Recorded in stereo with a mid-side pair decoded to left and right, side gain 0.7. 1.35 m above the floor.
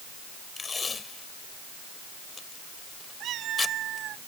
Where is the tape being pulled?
20° left.